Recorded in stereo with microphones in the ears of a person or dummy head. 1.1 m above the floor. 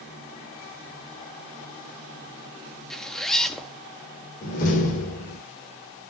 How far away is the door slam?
About 3.5 m.